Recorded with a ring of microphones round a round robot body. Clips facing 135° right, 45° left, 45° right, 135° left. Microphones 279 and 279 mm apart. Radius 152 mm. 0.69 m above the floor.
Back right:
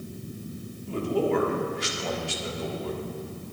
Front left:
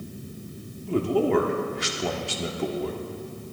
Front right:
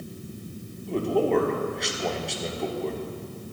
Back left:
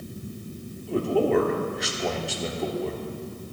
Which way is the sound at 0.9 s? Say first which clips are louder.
Front left 3 dB, back left 1 dB; 45° left.